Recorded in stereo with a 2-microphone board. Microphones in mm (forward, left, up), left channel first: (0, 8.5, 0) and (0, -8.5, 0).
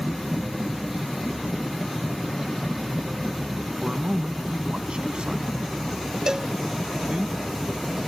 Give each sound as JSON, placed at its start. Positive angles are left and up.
{"t": 3.8, "sound": "a man speaking", "side_deg": -65}
{"t": 6.3, "sound": "a cowbell", "side_deg": -40}